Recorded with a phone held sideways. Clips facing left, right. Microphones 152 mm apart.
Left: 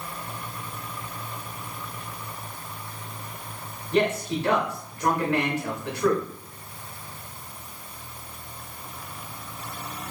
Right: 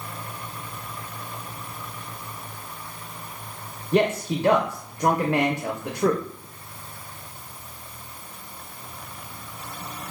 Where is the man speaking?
45° right (ahead or behind), 0.5 m.